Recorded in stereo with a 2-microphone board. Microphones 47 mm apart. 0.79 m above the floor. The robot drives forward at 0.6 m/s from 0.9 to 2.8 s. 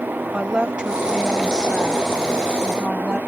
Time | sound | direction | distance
0.3 | a woman speaking | 20° right (ahead or behind) | ?